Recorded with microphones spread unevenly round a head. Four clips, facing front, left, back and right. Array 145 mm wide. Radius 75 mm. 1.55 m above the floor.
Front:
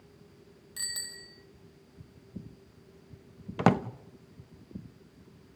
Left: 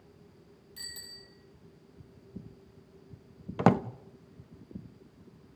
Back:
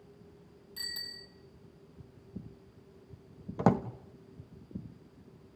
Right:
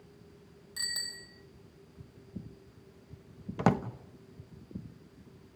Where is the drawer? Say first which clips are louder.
Left 4 dB, front 2 dB; 35° left, 0.8 m.